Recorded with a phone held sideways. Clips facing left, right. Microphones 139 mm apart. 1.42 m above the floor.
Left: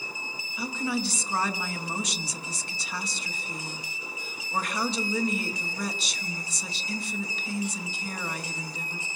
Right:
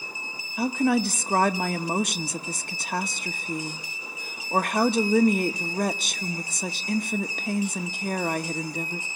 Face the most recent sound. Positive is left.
turn(degrees=-55)  # may be behind; listen again after turning